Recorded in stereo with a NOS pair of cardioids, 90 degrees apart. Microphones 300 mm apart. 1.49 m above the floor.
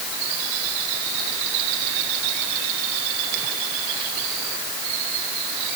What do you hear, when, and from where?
Only background noise.